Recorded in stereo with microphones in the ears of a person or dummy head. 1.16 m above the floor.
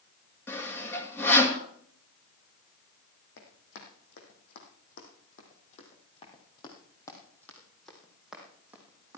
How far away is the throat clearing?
No throat clearing in this recording.